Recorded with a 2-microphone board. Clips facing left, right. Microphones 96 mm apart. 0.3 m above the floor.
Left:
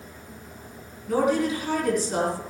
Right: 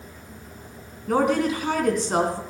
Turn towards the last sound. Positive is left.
turn(degrees=-65)  # may be behind; listen again after turning